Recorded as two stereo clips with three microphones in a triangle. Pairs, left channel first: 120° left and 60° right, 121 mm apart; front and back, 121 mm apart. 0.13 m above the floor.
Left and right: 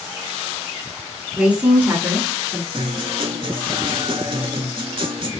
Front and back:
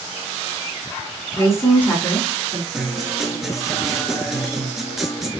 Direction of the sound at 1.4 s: 5° left.